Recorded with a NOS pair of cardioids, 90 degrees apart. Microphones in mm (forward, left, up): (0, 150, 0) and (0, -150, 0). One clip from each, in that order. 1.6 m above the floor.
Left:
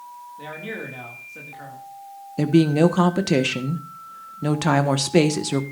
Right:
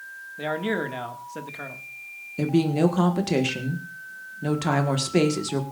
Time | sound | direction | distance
0.4 | a man speaking | 50° right | 2 m
2.4 | a woman speaking | 30° left | 1.5 m